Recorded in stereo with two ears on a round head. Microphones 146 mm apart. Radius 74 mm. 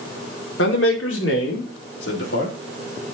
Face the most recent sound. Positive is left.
turn(degrees=70)  # may be behind; listen again after turning